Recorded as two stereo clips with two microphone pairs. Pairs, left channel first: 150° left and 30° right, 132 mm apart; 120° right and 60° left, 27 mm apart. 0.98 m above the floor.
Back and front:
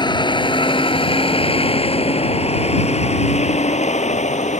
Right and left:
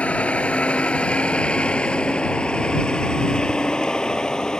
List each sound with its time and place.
0.0 s a vehicle: 155° right; by 4.6 s straight behind